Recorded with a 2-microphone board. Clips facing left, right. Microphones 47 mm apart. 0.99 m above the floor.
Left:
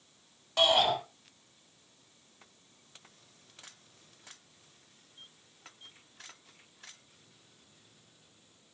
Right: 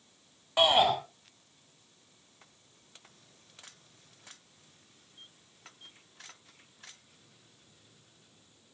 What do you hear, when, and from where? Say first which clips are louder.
0.6 s a shout: right 2 dB; 15° right (ahead or behind), 4.5 m